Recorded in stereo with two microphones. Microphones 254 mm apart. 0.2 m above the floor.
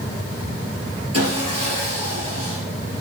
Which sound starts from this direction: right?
Sawing, at 1.1 s.